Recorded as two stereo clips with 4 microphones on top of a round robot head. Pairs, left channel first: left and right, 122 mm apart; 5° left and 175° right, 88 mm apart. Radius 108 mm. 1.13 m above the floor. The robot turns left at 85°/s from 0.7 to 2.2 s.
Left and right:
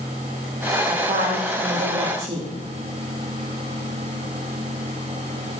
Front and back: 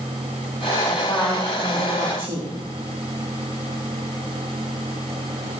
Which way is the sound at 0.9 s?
45° right.